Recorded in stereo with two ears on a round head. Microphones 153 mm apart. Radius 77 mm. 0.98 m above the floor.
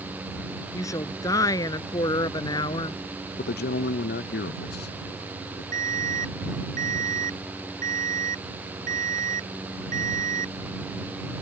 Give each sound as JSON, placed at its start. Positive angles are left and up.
{"t": 0.7, "sound": "a woman speaking", "side_deg": 20}
{"t": 3.4, "sound": "a man speaking", "side_deg": 60}
{"t": 5.7, "sound": "an alarm", "side_deg": -45}